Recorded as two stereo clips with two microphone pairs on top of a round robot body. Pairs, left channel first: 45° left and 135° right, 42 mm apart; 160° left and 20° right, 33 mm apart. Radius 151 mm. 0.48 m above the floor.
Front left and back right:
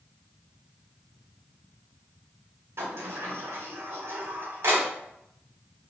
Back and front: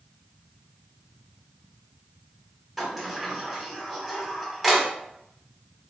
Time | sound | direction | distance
2.8 | a sliding door | 120° right | 0.8 m